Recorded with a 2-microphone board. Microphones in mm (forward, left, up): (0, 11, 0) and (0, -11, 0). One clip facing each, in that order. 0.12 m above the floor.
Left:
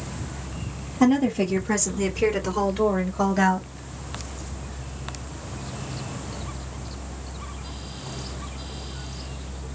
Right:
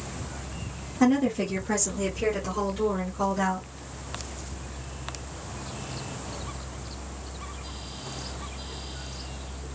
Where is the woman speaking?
5° right (ahead or behind), 1.9 m; by 3.7 s 40° left (ahead or behind), 1.6 m.